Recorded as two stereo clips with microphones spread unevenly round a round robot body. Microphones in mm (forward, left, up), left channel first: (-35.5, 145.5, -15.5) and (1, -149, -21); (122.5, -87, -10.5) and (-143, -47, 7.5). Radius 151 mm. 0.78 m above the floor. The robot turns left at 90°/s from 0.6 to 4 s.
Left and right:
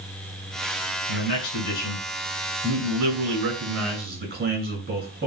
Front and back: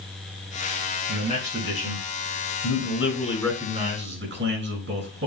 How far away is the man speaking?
About 6.5 m.